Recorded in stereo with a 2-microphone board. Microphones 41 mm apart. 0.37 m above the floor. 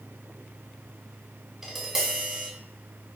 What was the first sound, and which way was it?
Tapping, 10° right (ahead or behind).